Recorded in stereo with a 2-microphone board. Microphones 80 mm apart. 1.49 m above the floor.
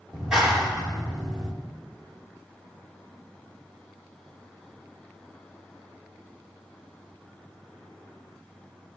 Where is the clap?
10° right (ahead or behind), 3.5 m.